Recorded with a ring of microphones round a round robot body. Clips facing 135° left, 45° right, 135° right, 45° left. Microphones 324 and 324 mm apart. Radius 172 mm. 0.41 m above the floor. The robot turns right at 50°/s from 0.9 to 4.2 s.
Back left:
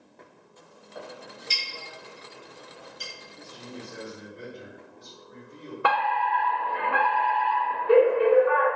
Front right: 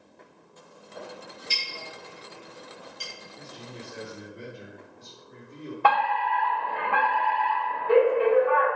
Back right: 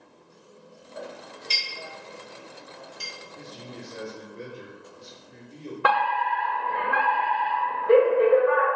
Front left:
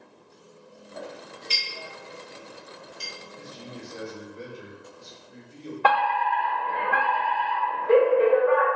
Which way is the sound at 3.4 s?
150° right.